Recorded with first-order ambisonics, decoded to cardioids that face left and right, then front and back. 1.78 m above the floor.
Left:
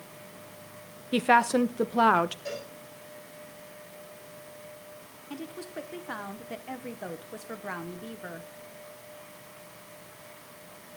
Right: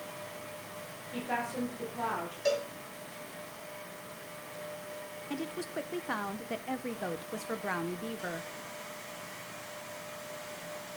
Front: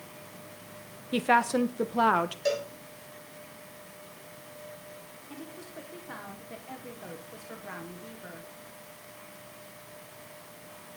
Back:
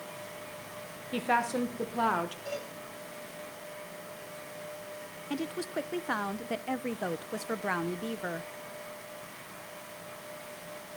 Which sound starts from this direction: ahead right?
A cowbell, at 2.5 s.